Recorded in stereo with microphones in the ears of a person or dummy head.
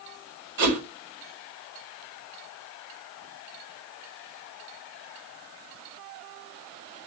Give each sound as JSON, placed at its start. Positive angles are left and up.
{"t": 0.6, "sound": "a whoosh", "side_deg": -45, "distance_m": 1.8}